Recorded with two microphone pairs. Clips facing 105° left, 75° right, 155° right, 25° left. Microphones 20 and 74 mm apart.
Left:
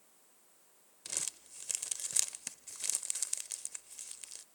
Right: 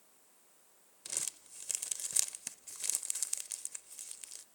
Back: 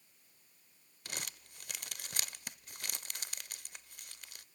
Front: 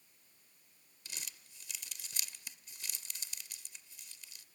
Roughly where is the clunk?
I don't hear a clunk.